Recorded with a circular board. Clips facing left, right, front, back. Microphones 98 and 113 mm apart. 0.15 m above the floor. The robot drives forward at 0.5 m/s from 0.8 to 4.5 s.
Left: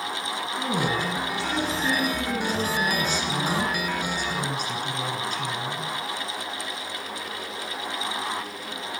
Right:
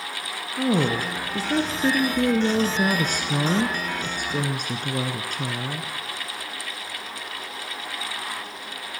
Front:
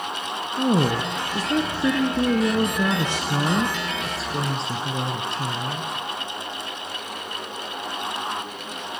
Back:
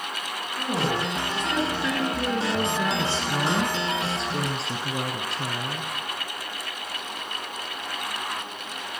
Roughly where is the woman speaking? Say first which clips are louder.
Right 5 dB, front 6 dB; ahead right.